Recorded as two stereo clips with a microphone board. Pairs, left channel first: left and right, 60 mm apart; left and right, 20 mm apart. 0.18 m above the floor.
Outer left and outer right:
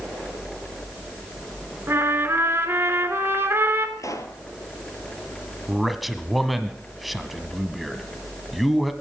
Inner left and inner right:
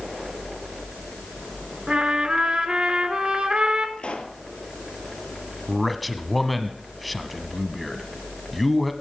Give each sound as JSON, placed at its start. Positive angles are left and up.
{"t": 1.9, "sound": "a trumpet", "side_deg": -40, "distance_m": 2.5}
{"t": 4.0, "sound": "a pop", "side_deg": 60, "distance_m": 1.7}
{"t": 5.7, "sound": "a man speaking", "side_deg": 0, "distance_m": 1.1}